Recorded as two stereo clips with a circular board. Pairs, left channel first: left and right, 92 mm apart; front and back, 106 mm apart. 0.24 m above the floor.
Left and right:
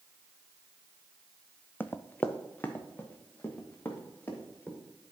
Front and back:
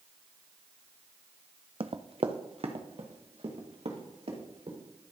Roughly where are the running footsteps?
Behind left.